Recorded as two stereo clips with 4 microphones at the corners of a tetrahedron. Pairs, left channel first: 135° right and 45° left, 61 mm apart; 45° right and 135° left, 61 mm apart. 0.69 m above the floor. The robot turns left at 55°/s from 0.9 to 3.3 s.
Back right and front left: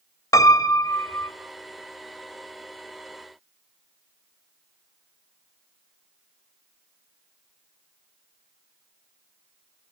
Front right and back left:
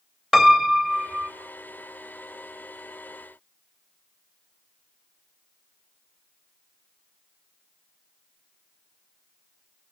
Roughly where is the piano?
Behind right.